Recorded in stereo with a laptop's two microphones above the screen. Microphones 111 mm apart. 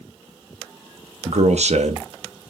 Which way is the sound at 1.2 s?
70° right (ahead or behind).